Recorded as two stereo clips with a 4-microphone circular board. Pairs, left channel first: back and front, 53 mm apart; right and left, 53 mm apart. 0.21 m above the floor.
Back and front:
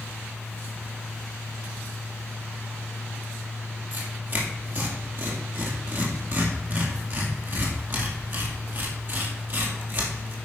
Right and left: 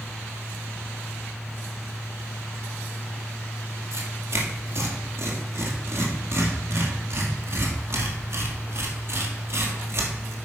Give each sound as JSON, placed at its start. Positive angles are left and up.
{"t": 3.9, "sound": "tearing paper", "azimuth_deg": 50, "distance_m": 1.9}